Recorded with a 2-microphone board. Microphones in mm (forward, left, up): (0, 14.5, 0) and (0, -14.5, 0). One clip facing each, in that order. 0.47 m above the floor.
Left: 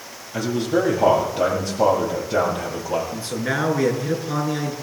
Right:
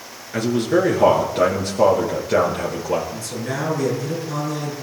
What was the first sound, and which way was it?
A man speaking, 80° right.